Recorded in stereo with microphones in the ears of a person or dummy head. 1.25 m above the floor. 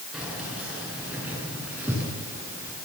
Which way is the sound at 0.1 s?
Centre (ahead or behind).